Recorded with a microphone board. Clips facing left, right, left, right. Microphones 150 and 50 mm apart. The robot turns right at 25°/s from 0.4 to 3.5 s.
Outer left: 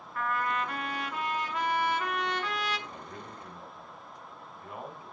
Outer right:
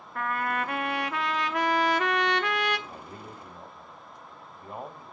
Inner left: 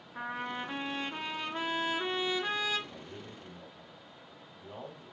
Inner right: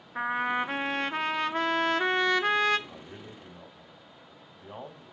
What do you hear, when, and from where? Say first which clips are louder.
0.1 s a trumpet: outer right 2 dB, inner right 9 dB; 120° right, 0.6 m; by 2.8 s 60° right, 0.6 m
2.9 s a man speaking: outer right 1 dB, inner right 1 dB; 35° right (ahead or behind), 1.3 m; by 5.1 s 30° right (ahead or behind), 1.3 m